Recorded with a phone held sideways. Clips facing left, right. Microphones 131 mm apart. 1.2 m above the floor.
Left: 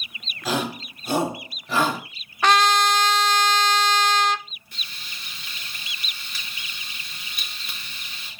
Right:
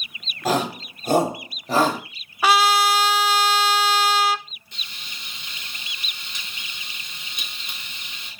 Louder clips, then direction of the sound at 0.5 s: Right 4 dB; 50° right (ahead or behind).